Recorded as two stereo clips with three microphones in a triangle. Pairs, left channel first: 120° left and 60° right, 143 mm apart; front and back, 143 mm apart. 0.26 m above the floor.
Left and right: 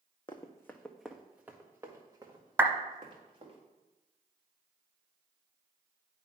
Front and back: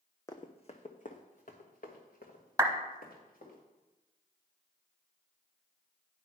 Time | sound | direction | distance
0.3 | running footsteps | 65° left | 0.9 m
2.6 | a clap | 125° right | 0.9 m